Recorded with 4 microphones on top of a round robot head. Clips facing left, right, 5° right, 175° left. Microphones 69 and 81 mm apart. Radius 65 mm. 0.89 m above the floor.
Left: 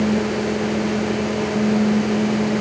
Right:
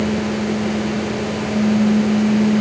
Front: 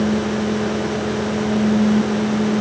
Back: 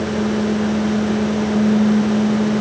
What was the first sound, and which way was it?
Only background noise.